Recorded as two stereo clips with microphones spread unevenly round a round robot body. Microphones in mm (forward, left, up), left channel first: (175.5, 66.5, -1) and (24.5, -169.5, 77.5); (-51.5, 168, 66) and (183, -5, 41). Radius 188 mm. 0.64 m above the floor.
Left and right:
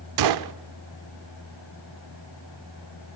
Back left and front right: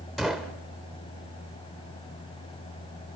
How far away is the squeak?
I don't hear a squeak.